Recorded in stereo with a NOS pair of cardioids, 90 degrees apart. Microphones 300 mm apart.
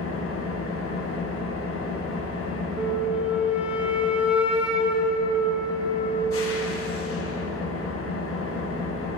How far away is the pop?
I don't hear a pop.